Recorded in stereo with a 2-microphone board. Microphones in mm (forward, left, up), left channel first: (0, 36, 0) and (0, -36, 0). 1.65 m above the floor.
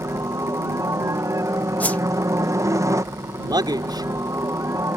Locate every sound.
0.0 s a helicopter: 50° right (ahead or behind)
1.8 s a whoosh: 20° left (ahead or behind)
3.4 s a man speaking: 80° right